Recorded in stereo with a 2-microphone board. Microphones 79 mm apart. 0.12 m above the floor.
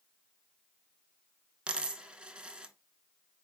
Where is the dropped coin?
15° right (ahead or behind), 0.5 m.